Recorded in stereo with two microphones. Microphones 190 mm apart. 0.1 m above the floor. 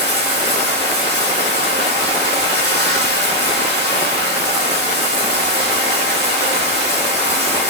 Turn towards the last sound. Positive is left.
turn(degrees=-60)  # may be behind; listen again after turning